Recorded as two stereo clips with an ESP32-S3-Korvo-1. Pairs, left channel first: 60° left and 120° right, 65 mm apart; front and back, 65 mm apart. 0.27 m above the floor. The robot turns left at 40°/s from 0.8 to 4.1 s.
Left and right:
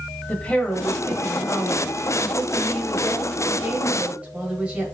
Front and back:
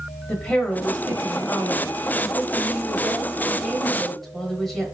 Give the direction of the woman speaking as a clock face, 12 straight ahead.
10 o'clock.